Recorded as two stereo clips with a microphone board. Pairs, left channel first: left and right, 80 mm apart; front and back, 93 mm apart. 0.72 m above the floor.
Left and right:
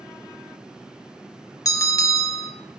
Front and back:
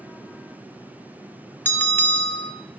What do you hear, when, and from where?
1.6 s a bell: 65° left, 1.4 m